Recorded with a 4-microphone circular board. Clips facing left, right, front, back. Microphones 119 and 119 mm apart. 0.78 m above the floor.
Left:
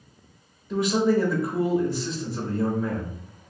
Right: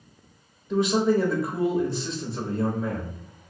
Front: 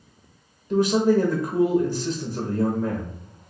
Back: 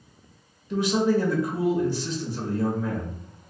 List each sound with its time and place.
0.7 s a man speaking: straight ahead, 0.8 m